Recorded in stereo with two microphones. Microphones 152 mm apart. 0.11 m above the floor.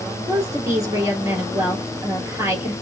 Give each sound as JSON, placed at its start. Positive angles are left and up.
{"t": 0.3, "sound": "a woman speaking", "side_deg": -20, "distance_m": 2.5}